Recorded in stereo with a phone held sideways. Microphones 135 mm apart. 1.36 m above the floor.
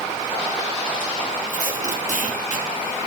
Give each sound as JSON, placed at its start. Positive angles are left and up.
{"t": 1.5, "sound": "tape being pulled", "side_deg": 65, "distance_m": 3.5}